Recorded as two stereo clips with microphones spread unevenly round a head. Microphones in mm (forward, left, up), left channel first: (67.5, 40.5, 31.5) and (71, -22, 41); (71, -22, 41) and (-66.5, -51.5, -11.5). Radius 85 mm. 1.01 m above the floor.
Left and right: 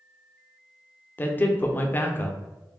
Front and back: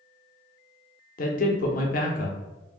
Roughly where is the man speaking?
Ahead left.